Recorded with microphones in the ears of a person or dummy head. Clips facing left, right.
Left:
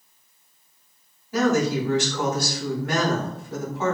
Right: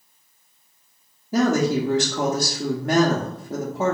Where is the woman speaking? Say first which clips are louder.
Right 2 dB; 30° right (ahead or behind), 0.5 m.